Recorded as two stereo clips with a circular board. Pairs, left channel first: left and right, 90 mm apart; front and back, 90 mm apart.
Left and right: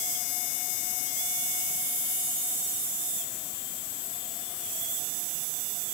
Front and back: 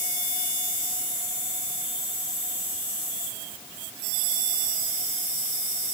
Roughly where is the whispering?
I don't hear whispering.